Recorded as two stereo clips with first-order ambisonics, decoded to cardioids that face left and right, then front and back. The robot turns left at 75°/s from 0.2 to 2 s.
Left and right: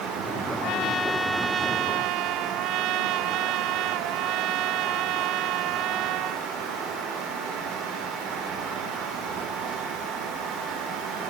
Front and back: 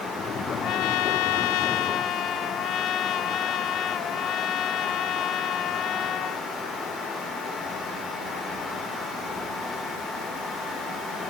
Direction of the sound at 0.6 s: 50° left.